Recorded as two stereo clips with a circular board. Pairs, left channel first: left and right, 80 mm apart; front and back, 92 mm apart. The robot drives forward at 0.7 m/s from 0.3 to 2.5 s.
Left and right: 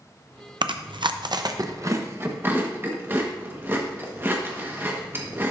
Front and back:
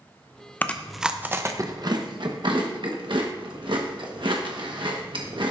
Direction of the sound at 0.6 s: 70° right.